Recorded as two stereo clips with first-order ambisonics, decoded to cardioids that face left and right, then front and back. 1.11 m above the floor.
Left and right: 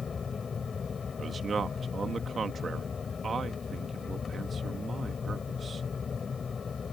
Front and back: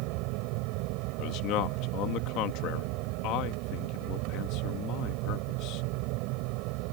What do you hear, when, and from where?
0.0 s an aircraft: 160° left
1.2 s a man speaking: 25° right